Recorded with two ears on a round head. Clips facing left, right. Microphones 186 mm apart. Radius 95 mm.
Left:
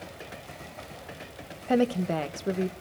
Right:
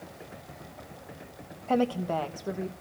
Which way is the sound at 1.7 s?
20° left (ahead or behind).